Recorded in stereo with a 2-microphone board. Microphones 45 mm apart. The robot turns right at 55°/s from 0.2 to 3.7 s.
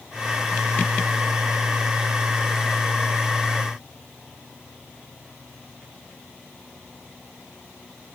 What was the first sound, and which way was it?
Only background noise.